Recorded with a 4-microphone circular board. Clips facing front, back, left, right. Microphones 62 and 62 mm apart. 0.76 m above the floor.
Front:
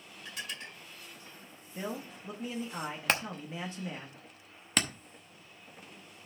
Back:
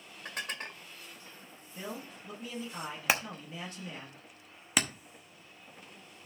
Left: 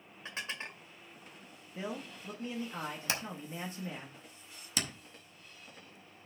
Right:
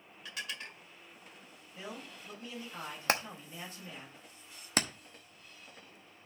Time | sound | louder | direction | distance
0.2 | dishes clattering | back 4 dB, left 2 dB | 145° left | 1.6 m
1.8 | a man speaking | front 3 dB, left 5 dB | 50° left | 1.3 m
3.1 | hammering | back 1 dB, right 5 dB | 100° right | 0.9 m